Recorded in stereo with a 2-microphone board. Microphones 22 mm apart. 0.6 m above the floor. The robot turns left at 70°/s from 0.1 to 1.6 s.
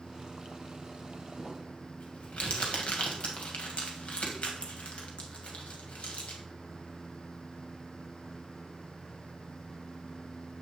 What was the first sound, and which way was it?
Crumpling, 55° left (ahead or behind).